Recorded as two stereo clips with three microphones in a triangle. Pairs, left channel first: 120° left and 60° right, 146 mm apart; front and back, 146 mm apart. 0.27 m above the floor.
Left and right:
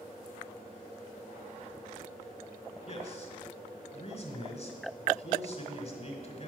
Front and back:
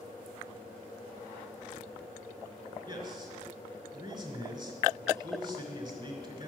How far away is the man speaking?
About 2 m.